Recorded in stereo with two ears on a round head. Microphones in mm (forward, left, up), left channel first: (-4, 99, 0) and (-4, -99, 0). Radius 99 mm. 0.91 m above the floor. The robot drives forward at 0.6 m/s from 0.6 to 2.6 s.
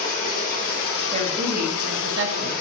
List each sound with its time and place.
0.0 s running water: 35° left (ahead or behind), 0.8 m; by 2.6 s 40° left (ahead or behind), 0.8 m
1.1 s a woman speaking: 25° right (ahead or behind), 0.9 m; by 2.5 s 60° right (ahead or behind), 0.5 m